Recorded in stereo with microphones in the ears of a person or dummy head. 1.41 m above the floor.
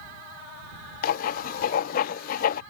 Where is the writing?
50° left (ahead or behind).